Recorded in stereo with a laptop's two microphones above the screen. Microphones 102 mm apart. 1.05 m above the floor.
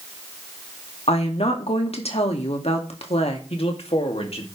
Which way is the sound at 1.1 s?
80° left.